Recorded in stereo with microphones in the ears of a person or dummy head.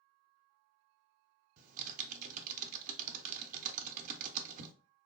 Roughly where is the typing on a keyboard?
Right.